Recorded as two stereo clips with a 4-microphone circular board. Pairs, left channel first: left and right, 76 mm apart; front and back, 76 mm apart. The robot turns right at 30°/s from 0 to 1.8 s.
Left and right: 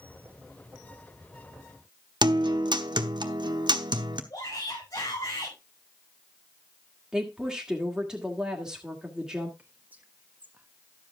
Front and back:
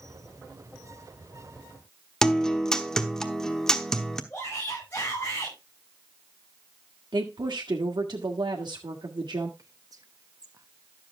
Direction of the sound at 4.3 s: 65° left.